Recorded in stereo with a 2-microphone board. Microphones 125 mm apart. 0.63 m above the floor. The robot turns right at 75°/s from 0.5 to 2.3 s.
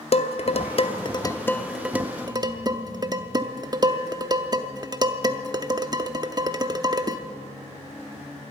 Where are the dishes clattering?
55° left (ahead or behind), 0.6 m; by 7.2 s 30° right (ahead or behind), 0.6 m.